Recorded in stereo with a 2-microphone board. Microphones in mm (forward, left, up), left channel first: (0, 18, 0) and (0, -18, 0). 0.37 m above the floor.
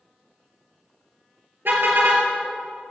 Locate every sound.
1.6 s a car horn: 75° right (ahead or behind), 4 m